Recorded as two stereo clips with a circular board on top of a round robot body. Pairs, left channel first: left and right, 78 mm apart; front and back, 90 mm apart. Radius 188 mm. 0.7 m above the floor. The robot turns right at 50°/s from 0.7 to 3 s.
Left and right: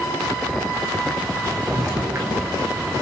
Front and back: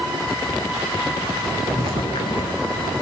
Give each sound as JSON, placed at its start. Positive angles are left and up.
{"t": 1.7, "sound": "footsteps", "azimuth_deg": -55, "distance_m": 1.0}